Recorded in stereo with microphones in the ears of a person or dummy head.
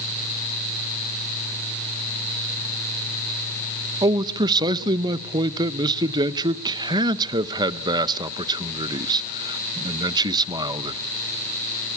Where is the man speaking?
25° right (ahead or behind), 0.8 m.